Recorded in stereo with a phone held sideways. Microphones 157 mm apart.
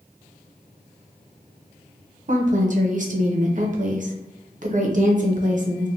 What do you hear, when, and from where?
2.3 s a woman speaking: 55° right (ahead or behind), 0.6 m